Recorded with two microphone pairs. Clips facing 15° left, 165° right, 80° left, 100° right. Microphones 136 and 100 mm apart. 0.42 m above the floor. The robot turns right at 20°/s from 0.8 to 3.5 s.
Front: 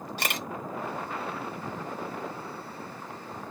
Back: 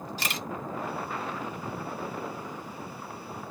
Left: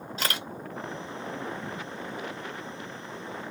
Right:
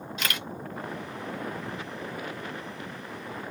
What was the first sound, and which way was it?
A camera shutter, 30° left.